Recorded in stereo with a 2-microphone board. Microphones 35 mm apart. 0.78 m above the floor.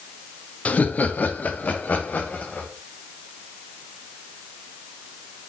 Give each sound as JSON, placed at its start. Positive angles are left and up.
{"t": 0.7, "sound": "laughter", "side_deg": 45, "distance_m": 0.8}